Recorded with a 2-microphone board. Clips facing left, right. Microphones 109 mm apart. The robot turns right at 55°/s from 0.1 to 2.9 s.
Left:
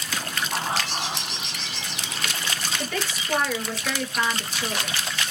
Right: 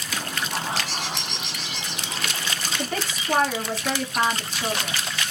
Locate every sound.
0.5 s a bird: 130° left, 2 m; by 2.2 s 140° right, 2 m
2.8 s a woman speaking: 55° right (ahead or behind), 1.7 m; by 5.0 s 50° right (ahead or behind), 1.7 m